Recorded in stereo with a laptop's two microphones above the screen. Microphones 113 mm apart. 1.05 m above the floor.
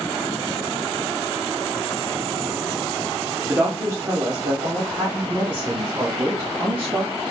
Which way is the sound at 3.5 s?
20° right (ahead or behind).